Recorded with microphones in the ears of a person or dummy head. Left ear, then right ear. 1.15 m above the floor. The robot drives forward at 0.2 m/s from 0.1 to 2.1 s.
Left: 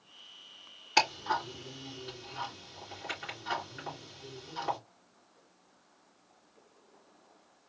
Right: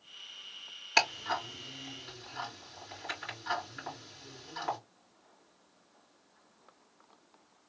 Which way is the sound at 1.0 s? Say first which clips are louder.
Left 1 dB; 25° right (ahead or behind).